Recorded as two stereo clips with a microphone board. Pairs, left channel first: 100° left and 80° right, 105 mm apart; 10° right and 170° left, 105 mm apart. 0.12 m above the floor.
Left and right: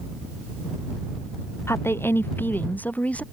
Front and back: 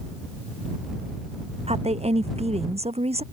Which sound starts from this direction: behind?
A woman speaking, at 1.7 s.